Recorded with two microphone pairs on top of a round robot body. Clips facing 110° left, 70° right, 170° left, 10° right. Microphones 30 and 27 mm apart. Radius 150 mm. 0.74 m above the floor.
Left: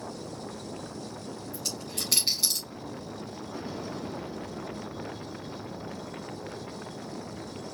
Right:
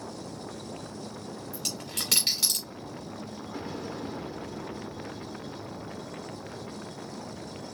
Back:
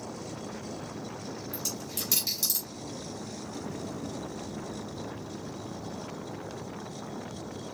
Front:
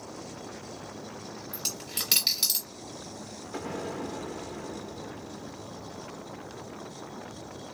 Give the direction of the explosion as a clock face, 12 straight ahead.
11 o'clock.